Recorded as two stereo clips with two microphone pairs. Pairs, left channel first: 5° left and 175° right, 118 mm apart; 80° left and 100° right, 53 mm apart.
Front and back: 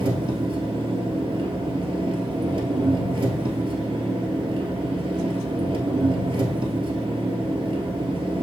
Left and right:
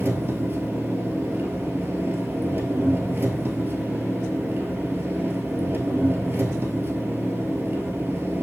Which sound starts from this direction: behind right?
An engine running, at 0.0 s.